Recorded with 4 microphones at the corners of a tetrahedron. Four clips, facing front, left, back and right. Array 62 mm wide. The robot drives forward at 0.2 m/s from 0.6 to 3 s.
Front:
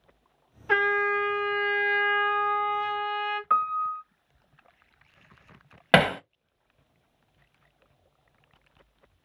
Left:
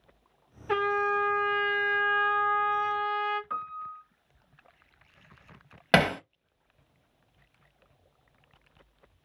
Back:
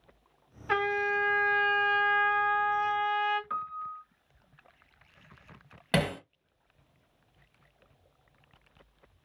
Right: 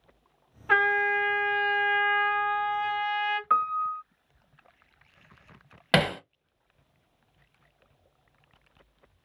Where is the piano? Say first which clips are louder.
Right 11 dB, front 11 dB; 50° right, 0.6 m.